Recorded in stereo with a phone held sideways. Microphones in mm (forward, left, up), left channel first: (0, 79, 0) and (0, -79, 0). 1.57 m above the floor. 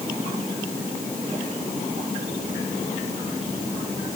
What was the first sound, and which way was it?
Only background noise.